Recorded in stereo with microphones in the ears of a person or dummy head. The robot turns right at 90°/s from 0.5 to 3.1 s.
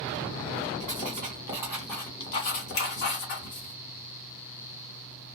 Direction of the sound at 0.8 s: 90° right.